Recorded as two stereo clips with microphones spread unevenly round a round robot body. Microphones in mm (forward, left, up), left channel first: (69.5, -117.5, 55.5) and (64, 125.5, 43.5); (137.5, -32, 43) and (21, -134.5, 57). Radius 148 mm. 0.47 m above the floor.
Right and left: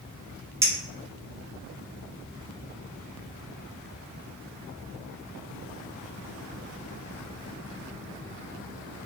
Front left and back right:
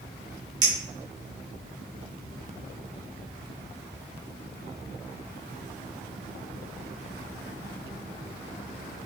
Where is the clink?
160° left, 0.7 m.